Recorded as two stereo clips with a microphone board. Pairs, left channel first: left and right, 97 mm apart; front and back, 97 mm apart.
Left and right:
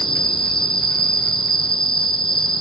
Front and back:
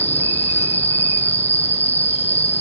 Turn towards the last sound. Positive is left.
turn(degrees=70)